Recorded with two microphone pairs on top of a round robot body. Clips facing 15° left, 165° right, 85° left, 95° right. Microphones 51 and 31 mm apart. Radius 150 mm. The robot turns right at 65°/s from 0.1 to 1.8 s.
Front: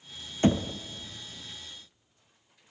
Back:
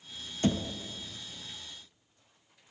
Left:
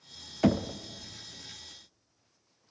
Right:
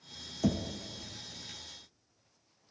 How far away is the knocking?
About 0.5 m.